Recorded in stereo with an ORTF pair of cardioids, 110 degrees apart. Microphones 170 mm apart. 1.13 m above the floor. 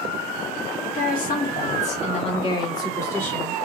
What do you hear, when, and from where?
0.8 s a woman speaking: 55° left, 1.8 m; by 3.5 s 5° left, 1.5 m